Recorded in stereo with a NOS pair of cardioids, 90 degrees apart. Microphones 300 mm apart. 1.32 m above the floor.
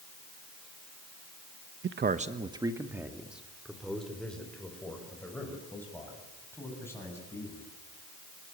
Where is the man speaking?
45° right, 1.0 m; by 7.6 s 10° left, 9.5 m.